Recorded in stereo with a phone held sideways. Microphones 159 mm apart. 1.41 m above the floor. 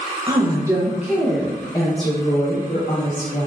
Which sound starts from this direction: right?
A woman speaking, at 0.3 s.